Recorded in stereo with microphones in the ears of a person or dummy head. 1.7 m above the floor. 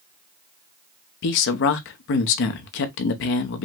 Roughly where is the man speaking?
Left.